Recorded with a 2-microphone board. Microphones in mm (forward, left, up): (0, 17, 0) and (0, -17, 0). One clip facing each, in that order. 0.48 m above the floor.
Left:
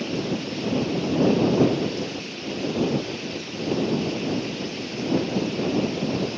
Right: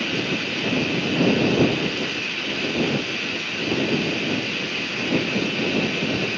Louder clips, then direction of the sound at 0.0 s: Right 3 dB; 70° right (ahead or behind).